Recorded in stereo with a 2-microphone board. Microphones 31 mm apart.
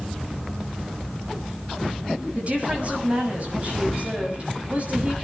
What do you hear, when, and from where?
2.4 s a woman speaking: 40° right (ahead or behind), 7 m